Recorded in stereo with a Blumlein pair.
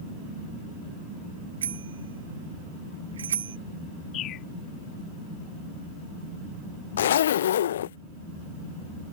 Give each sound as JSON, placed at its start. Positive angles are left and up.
{"t": 1.6, "sound": "a bicycle bell", "azimuth_deg": -65}
{"t": 4.1, "sound": "a bird", "azimuth_deg": 30}
{"t": 7.0, "sound": "a zipper", "azimuth_deg": 60}